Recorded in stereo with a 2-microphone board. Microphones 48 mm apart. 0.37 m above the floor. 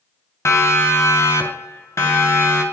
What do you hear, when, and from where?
0.5 s a siren: 75° left (ahead or behind), 3.5 m